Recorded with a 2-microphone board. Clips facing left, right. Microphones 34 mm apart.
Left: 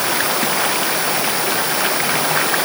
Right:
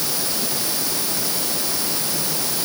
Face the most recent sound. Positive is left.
turn(degrees=70)  # may be behind; listen again after turning